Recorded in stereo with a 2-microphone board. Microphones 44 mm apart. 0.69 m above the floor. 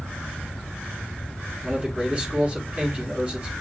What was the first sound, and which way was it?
A man speaking, 30° right (ahead or behind).